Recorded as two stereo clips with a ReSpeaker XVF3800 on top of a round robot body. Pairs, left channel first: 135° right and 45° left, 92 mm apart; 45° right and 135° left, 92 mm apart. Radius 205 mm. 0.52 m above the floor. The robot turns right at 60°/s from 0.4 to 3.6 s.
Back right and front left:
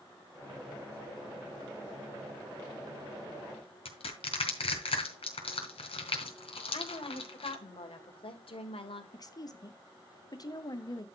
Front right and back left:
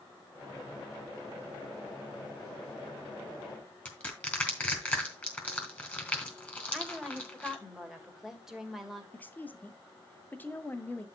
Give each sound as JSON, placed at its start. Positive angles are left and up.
{"t": 3.9, "sound": "crushing", "azimuth_deg": -125, "distance_m": 3.0}
{"t": 6.7, "sound": "a woman speaking", "azimuth_deg": -140, "distance_m": 2.5}
{"t": 9.1, "sound": "a woman speaking", "azimuth_deg": -110, "distance_m": 1.7}